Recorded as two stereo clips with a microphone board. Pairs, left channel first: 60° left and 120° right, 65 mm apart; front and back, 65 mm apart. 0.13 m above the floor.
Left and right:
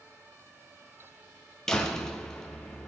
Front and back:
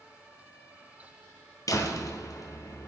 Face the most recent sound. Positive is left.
turn(degrees=-20)